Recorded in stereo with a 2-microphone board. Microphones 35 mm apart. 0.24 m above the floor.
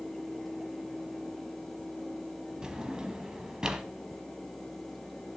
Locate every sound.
2.6 s a drawer: 20° right (ahead or behind), 0.9 m